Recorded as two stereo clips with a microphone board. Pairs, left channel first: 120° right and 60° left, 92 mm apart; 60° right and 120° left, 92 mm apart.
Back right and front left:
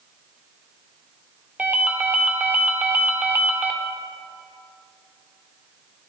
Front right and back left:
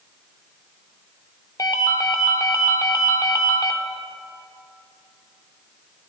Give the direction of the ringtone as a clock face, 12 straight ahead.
12 o'clock.